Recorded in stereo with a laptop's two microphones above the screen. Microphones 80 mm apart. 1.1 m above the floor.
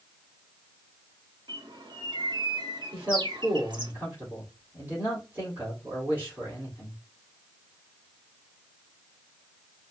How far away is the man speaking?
About 3 m.